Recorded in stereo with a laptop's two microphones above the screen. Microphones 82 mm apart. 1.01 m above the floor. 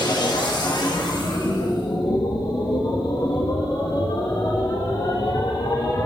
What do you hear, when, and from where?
0.0 s a machine running: 60° left (ahead or behind), 1.6 m